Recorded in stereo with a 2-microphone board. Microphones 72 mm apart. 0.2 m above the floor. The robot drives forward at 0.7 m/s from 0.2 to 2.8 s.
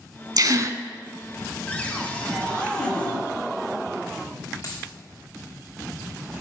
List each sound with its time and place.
0.4 s a gasp: 55° right (ahead or behind), 0.6 m; by 0.8 s 45° right (ahead or behind), 0.7 m
1.7 s a cupboard door: 20° left (ahead or behind), 1.5 m; by 3.2 s 15° left (ahead or behind), 1.8 m
4.6 s a dropped coin: 55° left (ahead or behind), 3 m